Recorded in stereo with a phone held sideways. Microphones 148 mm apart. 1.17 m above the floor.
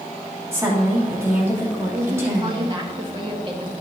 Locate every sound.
0.5 s a woman speaking: 15° right (ahead or behind), 2.5 m
1.9 s a woman speaking: 35° right (ahead or behind), 1.7 m